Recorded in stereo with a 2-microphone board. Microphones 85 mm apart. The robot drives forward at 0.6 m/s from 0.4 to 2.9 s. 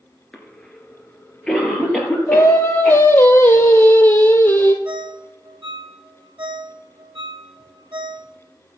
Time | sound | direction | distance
0.3 | a cough | 10° left (ahead or behind) | 3 m
2.3 | singing | 35° left (ahead or behind) | 1.1 m
4.8 | a ringtone | 70° right (ahead or behind) | 3 m